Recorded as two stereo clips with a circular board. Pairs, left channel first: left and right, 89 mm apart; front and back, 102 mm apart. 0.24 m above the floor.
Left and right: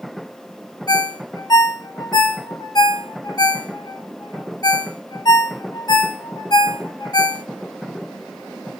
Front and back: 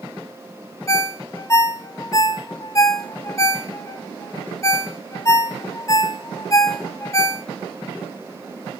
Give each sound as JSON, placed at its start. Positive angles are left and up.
{"t": 0.9, "sound": "a ringtone", "azimuth_deg": 55, "distance_m": 0.7}